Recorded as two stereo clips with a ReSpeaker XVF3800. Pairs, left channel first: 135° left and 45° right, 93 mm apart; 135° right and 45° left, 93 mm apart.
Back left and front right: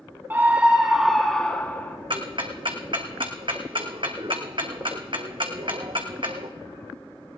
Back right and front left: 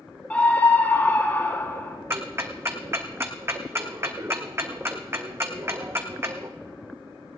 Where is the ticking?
20° right, 1.5 m.